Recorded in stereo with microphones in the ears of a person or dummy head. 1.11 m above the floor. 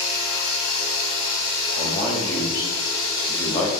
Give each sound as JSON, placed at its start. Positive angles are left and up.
{"t": 0.0, "sound": "running water", "side_deg": 35, "distance_m": 2.5}
{"t": 1.8, "sound": "a man speaking", "side_deg": 20, "distance_m": 3.0}